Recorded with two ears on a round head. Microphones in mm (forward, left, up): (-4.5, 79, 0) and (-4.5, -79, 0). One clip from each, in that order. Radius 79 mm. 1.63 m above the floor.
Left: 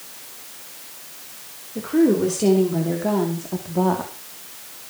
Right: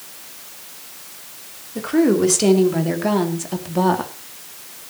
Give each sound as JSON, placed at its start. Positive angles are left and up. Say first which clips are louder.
{"t": 1.8, "sound": "a woman speaking", "louder": "right 1 dB", "side_deg": -50, "distance_m": 5.0}